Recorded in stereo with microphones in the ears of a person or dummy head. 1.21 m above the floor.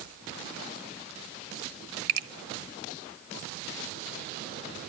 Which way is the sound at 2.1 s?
60° right (ahead or behind).